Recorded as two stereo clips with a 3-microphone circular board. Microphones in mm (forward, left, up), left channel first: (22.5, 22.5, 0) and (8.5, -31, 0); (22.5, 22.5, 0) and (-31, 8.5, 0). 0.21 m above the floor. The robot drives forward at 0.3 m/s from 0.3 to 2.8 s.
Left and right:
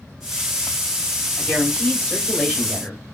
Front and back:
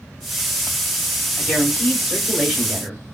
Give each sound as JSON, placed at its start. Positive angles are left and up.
{"t": 1.4, "sound": "a woman speaking", "azimuth_deg": 75, "distance_m": 1.5}